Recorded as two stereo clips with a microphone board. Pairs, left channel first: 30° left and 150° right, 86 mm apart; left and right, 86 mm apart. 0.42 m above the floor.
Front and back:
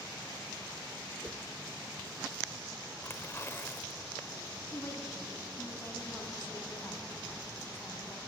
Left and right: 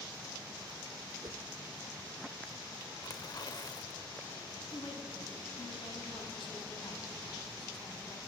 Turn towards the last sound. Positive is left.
turn(degrees=90)